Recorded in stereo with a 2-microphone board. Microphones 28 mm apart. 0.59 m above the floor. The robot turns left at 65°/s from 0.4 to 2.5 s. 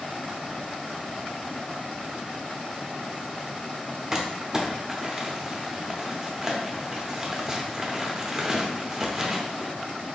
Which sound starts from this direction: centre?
Crumpling, at 4.1 s.